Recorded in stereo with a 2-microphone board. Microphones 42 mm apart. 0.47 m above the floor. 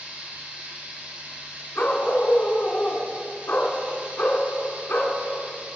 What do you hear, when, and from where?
0.0 s running water: 45° right (ahead or behind), 4 m
1.8 s a dog barking: 60° left (ahead or behind), 1.7 m